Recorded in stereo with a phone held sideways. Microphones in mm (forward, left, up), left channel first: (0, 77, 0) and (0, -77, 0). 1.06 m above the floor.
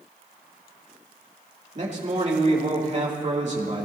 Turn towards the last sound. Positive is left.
turn(degrees=-50)  # may be behind; listen again after turning